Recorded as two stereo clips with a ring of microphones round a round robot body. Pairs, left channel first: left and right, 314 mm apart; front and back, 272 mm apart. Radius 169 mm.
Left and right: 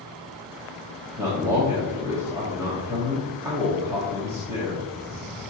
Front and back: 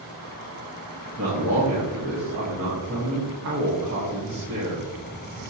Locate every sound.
1.2 s a man speaking: 170° right, 1.5 m